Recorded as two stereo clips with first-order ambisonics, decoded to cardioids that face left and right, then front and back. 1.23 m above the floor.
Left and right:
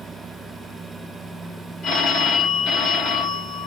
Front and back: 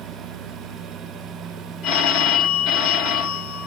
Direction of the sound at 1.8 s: 40° left.